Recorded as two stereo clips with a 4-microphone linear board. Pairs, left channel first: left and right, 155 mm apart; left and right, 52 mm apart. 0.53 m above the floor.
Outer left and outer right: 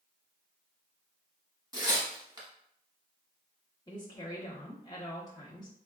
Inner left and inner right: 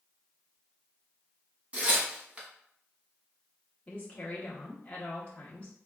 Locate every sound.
1.7 s tearing paper: 25° right (ahead or behind), 1.3 m
3.9 s a woman speaking: 25° left (ahead or behind), 0.9 m